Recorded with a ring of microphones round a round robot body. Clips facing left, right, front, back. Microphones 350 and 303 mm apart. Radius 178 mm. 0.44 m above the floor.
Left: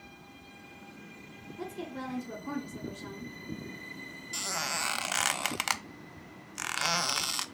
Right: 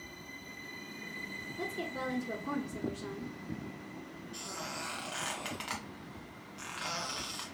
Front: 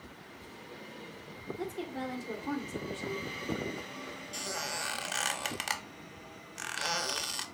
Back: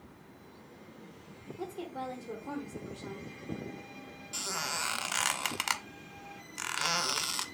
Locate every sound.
1.6 s a woman speaking: 10° left, 1.3 m
4.3 s a squeak: 105° left, 0.5 m